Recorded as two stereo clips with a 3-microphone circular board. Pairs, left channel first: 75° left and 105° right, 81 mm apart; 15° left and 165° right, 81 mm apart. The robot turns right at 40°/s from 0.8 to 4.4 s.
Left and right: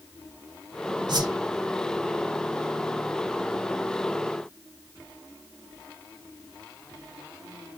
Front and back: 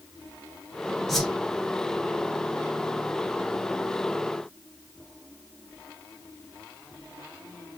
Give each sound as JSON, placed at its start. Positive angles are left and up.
{"t": 1.1, "sound": "a whoosh", "azimuth_deg": -75, "distance_m": 0.7}